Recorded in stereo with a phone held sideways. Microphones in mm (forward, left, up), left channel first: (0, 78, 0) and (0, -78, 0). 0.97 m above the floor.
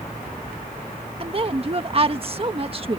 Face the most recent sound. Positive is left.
turn(degrees=-40)  # may be behind; listen again after turning